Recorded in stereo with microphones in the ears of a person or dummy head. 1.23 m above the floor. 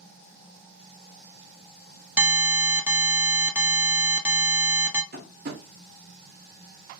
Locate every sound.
2.2 s an alarm: 10° right (ahead or behind), 0.5 m
5.1 s tapping: 50° right (ahead or behind), 0.7 m